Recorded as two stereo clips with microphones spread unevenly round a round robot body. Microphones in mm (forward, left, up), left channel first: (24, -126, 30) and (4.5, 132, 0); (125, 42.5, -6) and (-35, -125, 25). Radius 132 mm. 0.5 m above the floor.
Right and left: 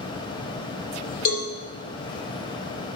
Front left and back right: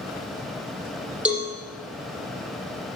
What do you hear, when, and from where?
1.2 s a cowbell: 50° right, 6 m